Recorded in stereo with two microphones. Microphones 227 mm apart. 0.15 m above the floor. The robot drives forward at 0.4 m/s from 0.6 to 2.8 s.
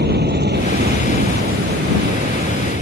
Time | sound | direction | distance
0.0 | an aircraft | 45° right (ahead or behind) | ?